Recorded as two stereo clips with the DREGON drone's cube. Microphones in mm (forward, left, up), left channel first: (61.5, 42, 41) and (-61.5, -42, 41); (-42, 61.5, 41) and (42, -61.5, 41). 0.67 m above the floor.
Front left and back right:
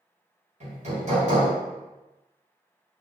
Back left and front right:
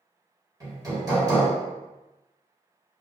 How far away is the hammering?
About 1.3 m.